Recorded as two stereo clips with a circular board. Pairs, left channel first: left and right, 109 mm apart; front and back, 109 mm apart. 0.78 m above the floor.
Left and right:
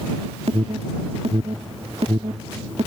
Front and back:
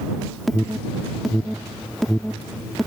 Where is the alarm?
90° right.